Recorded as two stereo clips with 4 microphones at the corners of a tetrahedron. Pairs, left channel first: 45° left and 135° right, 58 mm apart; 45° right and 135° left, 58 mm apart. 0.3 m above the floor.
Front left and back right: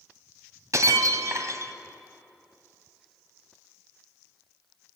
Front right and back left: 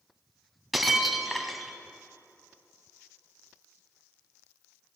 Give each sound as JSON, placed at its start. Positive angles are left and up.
{"t": 0.7, "sound": "breaking glass", "azimuth_deg": -135, "distance_m": 1.3}